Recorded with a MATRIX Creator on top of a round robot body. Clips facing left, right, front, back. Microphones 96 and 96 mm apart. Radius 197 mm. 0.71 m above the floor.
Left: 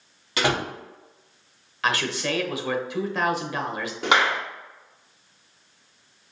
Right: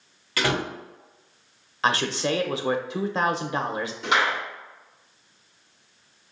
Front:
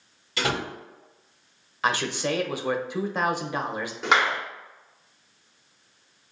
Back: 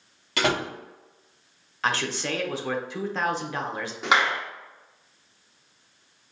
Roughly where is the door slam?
Behind.